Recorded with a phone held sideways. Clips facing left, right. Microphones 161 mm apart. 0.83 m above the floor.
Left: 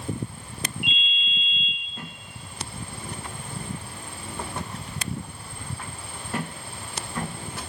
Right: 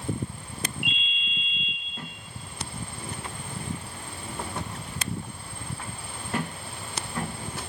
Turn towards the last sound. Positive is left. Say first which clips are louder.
# left 1 dB
turn(degrees=-55)  # may be behind; listen again after turning